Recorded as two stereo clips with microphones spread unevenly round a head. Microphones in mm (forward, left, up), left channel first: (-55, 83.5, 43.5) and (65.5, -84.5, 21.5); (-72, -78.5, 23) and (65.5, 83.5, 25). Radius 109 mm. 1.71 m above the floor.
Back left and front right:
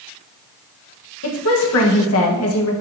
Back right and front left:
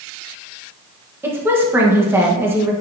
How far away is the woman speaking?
About 1.4 m.